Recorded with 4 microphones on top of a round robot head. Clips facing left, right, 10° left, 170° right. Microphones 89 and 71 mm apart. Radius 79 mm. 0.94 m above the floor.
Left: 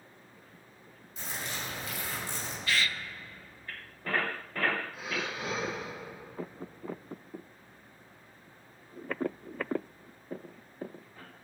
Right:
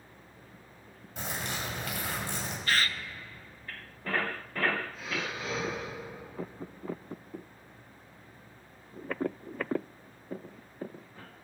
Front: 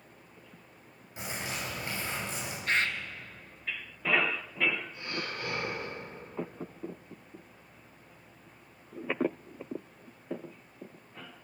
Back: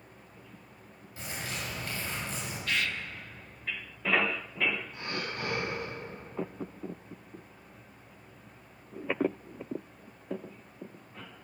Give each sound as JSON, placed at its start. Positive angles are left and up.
{"t": 1.2, "sound": "a bird", "azimuth_deg": -65, "distance_m": 5.5}
{"t": 2.7, "sound": "a bird", "azimuth_deg": -45, "distance_m": 0.9}
{"t": 4.9, "sound": "breathing", "azimuth_deg": 170, "distance_m": 7.5}